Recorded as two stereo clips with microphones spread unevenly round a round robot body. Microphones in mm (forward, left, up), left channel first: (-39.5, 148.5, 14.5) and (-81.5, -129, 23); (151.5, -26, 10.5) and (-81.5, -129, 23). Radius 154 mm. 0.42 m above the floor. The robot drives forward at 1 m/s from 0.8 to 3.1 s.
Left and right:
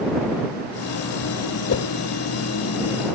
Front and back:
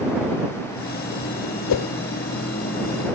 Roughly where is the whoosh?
Ahead left.